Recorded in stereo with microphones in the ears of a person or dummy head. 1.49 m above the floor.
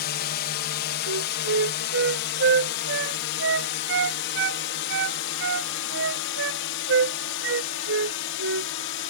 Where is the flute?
70° right (ahead or behind).